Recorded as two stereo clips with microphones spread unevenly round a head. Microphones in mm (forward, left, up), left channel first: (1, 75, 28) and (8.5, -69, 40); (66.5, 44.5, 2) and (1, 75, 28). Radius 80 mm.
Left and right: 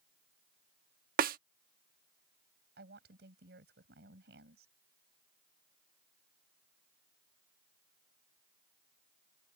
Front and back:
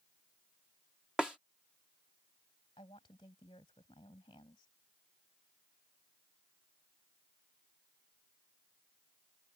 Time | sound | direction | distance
1.2 | a snare drum | 115° right | ?
2.8 | a woman speaking | 70° right | ?